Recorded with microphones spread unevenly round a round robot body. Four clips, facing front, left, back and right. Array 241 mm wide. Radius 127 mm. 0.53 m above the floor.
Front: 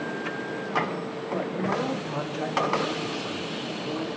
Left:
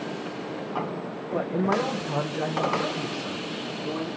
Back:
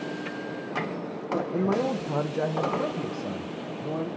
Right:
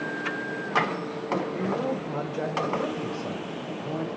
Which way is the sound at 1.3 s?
120° left.